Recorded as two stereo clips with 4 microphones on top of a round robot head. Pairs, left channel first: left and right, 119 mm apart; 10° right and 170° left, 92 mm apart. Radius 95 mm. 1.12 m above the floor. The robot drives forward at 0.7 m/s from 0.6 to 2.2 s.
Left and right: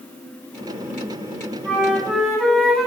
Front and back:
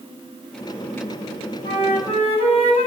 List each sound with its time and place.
1.6 s a flute: 5° left, 1.4 m